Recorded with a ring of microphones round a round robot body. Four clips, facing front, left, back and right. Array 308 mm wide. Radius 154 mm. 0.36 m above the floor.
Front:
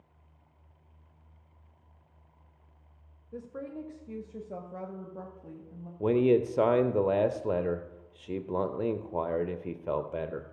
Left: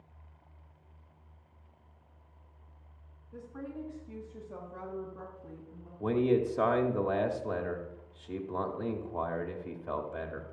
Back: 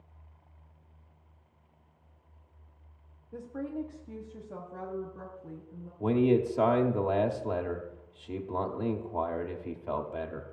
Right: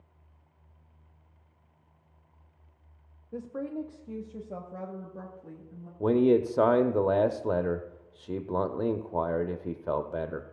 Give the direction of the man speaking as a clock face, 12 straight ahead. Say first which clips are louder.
Right 5 dB, front 1 dB; 2 o'clock.